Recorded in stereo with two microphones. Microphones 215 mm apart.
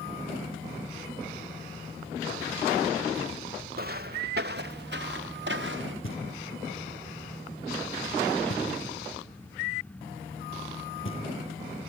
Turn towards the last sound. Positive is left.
turn(degrees=70)  # may be behind; listen again after turning